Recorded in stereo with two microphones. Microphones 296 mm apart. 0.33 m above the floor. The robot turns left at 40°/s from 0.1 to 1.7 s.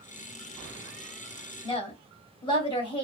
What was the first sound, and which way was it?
A woman speaking, 15° left (ahead or behind).